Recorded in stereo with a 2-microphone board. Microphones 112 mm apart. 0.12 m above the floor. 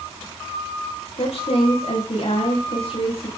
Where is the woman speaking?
65° left (ahead or behind), 9.5 m.